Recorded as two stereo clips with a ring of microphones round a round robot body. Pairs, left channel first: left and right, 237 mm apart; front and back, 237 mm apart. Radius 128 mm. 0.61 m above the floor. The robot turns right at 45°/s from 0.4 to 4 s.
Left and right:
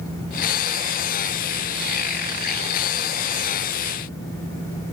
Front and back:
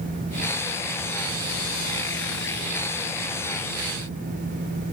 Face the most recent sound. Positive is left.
No sound to turn to.